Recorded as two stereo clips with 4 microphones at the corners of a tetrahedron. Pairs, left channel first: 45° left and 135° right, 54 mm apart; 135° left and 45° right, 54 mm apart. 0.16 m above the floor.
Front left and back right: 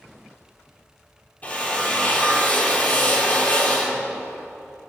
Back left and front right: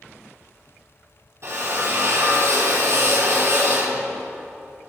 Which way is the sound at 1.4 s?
15° right.